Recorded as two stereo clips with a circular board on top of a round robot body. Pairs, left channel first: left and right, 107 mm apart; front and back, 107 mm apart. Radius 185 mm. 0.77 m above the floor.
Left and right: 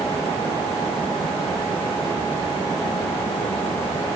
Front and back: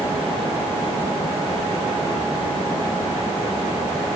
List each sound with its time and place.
Only background noise.